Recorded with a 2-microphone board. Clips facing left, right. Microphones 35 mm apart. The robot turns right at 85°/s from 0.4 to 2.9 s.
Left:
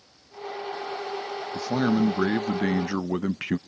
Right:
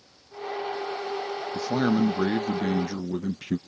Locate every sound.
1.5 s a man speaking: 30° right, 0.5 m; by 3.6 s 85° left, 0.5 m